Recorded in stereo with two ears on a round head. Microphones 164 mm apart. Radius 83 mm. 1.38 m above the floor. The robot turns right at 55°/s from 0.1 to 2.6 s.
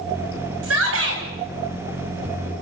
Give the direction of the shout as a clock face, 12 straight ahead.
3 o'clock.